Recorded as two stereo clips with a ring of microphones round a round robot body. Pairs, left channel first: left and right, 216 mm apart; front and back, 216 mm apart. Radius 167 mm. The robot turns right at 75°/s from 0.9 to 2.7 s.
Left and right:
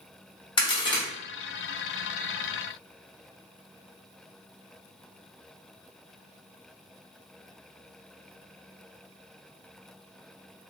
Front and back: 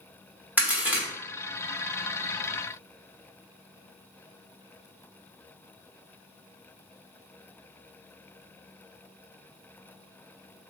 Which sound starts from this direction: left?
A crack, at 0.6 s.